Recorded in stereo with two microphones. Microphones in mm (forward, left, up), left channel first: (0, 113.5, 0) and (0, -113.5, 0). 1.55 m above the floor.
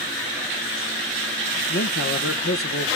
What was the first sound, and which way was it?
A man speaking, 65° left (ahead or behind).